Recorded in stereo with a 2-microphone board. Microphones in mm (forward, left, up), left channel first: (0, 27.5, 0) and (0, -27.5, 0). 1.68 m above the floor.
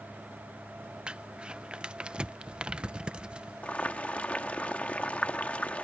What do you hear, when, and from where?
1.1 s crumpling: 20° right (ahead or behind)
3.6 s boiling: 25° left (ahead or behind)